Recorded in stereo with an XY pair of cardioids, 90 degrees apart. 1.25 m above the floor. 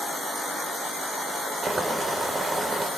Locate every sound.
1.6 s boiling: 30° right, 3.5 m